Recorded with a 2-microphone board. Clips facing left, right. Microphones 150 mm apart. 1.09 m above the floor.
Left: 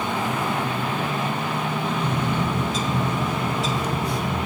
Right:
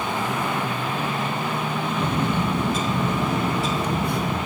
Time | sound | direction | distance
2.0 | a bird | 60° right (ahead or behind) | 1.0 m